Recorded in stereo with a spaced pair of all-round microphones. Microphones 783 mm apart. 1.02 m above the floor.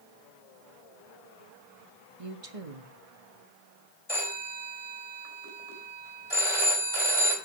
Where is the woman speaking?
45° right (ahead or behind), 1.5 m.